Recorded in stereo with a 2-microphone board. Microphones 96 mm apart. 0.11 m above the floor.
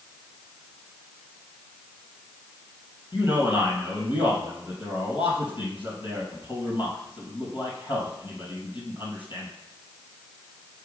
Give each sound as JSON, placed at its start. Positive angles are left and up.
{"t": 3.1, "sound": "a man speaking", "side_deg": 60, "distance_m": 3.0}